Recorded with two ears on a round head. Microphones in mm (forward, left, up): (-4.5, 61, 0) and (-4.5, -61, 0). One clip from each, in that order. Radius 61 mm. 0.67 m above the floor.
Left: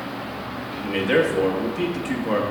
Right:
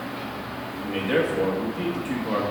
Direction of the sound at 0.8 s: 20° left (ahead or behind).